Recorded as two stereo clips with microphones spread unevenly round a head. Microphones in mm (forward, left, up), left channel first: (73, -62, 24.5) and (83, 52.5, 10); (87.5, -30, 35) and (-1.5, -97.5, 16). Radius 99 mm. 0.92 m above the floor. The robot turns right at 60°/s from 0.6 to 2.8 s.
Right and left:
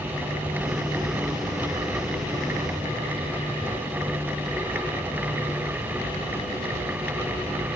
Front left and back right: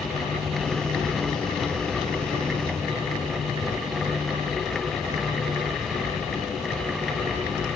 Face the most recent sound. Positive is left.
No sound to turn to.